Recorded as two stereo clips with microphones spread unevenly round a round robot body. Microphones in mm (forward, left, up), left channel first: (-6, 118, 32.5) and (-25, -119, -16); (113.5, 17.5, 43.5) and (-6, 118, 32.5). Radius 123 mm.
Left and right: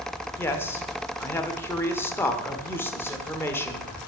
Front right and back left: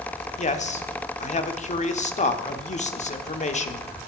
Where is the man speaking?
Straight ahead, 1.4 m.